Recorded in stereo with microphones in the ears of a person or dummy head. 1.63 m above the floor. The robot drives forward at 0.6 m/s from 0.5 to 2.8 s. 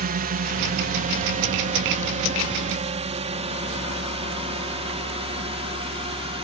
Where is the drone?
45° right (ahead or behind); by 6.5 s 25° right (ahead or behind).